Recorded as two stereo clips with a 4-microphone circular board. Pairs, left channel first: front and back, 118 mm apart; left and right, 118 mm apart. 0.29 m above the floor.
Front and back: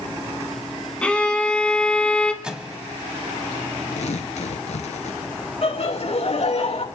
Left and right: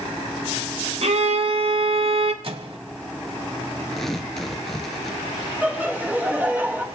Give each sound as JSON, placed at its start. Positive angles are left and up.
{"t": 1.0, "sound": "a violin", "azimuth_deg": -80, "distance_m": 1.5}
{"t": 2.4, "sound": "a microwave", "azimuth_deg": -100, "distance_m": 1.3}
{"t": 3.9, "sound": "tearing paper", "azimuth_deg": 5, "distance_m": 1.5}
{"t": 5.6, "sound": "laughter", "azimuth_deg": -15, "distance_m": 3.5}